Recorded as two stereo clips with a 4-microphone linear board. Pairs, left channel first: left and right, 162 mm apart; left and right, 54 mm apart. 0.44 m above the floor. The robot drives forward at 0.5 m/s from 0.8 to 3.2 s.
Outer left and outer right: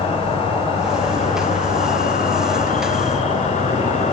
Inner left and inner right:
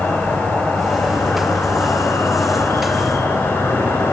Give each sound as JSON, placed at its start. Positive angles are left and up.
{"t": 0.0, "sound": "an insect", "side_deg": 40, "distance_m": 1.0}